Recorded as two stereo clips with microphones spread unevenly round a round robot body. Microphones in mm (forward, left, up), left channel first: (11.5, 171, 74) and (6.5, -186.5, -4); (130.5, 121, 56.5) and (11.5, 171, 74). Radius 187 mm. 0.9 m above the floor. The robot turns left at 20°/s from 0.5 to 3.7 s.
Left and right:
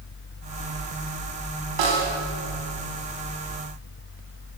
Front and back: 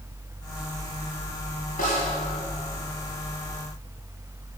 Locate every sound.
1.8 s a snare drum: 75° right, 2.5 m; by 2.1 s 80° right, 2.5 m